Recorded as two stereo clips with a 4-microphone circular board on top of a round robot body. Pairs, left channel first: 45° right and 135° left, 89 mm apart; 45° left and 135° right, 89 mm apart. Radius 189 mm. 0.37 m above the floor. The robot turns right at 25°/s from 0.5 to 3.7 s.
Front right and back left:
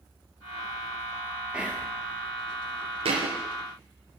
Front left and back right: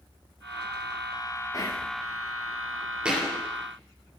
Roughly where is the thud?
Behind left.